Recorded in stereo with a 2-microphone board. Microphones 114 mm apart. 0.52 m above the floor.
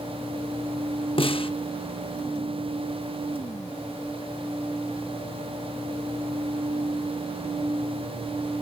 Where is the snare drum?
50° left (ahead or behind), 0.8 m.